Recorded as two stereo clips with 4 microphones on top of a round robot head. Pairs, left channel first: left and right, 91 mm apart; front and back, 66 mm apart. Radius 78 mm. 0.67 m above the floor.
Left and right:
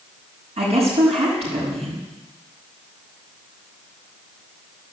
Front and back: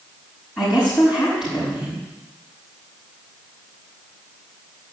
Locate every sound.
0.6 s a woman speaking: 90° right, 6 m